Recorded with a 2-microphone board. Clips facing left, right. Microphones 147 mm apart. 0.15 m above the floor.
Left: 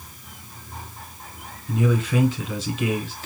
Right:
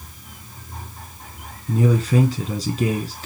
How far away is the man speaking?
About 1.2 m.